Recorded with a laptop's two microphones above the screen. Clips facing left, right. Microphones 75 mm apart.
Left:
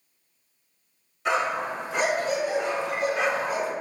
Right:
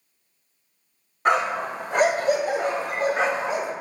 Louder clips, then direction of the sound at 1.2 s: Right 3 dB; 50° right (ahead or behind).